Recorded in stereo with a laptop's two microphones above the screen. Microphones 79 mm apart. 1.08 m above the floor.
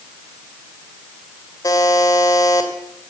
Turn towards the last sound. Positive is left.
turn(degrees=50)  # may be behind; listen again after turning